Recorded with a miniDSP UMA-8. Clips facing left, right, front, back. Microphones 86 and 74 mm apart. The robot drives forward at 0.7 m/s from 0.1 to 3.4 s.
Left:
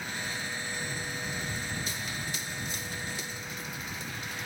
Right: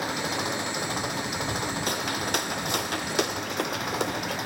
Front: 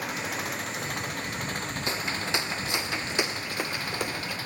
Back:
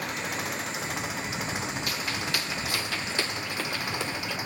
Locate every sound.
0.0 s an engine running: 90° right; by 4.5 s 105° right
1.9 s footsteps: 65° right; by 4.4 s 80° right